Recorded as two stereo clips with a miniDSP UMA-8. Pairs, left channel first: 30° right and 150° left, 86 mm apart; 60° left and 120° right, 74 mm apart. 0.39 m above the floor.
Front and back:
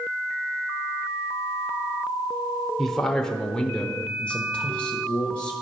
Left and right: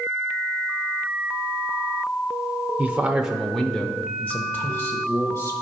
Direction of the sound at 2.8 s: 110° right.